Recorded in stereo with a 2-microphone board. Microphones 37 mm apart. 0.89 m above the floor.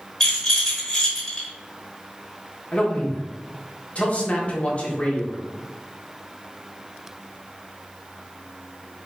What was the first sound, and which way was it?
A rattle, 10° left (ahead or behind).